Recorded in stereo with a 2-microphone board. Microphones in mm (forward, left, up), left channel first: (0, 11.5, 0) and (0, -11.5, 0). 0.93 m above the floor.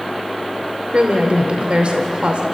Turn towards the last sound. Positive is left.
turn(degrees=-55)  # may be behind; listen again after turning